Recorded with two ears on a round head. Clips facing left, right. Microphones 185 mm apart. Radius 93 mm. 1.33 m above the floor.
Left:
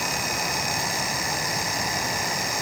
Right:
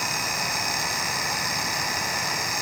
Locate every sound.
Only background noise.